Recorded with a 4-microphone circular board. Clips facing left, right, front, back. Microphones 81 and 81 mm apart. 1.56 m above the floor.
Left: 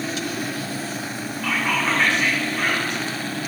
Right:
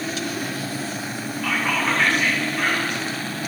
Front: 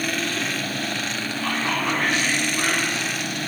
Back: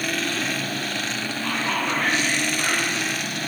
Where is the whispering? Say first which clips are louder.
Even, front 1 dB; straight ahead, 3.5 m.